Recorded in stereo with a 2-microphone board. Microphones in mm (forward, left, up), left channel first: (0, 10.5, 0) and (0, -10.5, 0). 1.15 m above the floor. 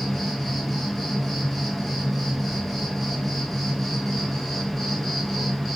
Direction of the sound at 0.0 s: Centre (ahead or behind).